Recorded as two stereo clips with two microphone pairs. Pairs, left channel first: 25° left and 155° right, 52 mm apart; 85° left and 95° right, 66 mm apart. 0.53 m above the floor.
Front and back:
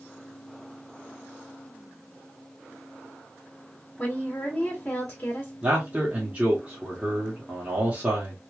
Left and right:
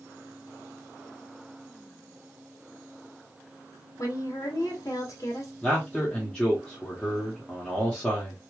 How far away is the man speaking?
About 1.3 m.